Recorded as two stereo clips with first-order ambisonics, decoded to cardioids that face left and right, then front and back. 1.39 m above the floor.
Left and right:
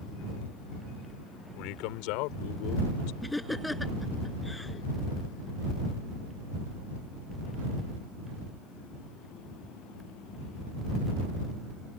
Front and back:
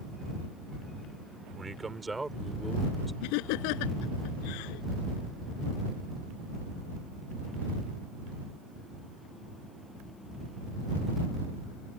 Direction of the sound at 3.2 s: 5° left.